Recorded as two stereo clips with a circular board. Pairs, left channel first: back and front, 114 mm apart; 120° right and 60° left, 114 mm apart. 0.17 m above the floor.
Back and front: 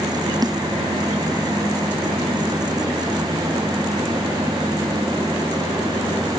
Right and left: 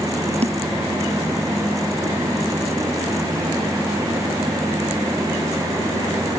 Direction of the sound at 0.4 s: 55° left.